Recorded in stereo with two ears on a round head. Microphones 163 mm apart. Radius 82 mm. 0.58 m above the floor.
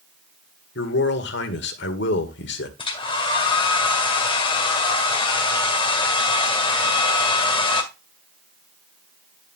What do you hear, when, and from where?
0.8 s a man speaking: 65° left (ahead or behind), 1.7 m
2.8 s a hair dryer: 30° left (ahead or behind), 1.8 m